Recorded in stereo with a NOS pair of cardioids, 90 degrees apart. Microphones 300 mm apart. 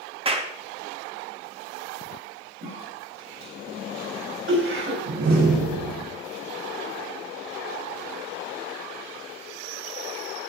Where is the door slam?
65° right, 4 m.